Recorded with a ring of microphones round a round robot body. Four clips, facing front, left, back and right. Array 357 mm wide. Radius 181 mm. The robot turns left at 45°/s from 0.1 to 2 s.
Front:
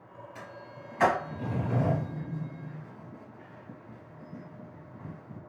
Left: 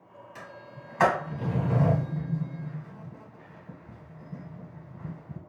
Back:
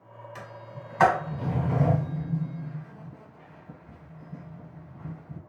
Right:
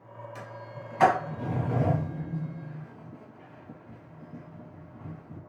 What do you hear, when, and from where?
0.3 s a sliding door: 175° right, 1.0 m; by 5.4 s 110° left, 1.0 m